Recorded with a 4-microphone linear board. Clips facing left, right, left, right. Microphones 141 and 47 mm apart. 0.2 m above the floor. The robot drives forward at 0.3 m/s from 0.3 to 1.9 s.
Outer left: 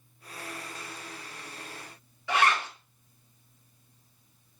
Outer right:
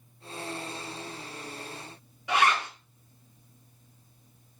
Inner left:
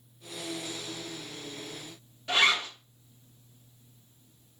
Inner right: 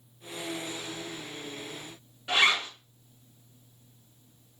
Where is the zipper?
20° right (ahead or behind), 1.5 m.